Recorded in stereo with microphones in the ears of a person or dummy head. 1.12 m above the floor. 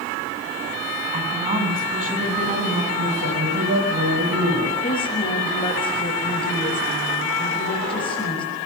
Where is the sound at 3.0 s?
70° right (ahead or behind), 8 m.